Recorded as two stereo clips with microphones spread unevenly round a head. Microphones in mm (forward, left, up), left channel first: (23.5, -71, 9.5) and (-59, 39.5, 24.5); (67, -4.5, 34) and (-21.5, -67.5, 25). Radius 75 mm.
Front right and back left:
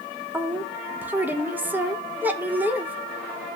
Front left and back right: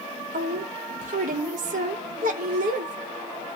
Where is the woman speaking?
155° right, 0.9 m.